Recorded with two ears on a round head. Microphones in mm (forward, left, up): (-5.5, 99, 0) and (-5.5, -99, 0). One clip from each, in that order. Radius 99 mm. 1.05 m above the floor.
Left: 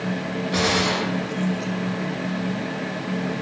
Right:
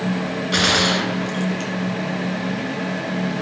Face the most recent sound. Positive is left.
turn(degrees=-45)  # may be behind; listen again after turning